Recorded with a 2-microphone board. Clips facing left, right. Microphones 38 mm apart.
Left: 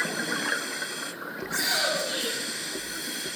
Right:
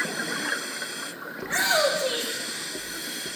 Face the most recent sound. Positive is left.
turn(degrees=-55)  # may be behind; listen again after turning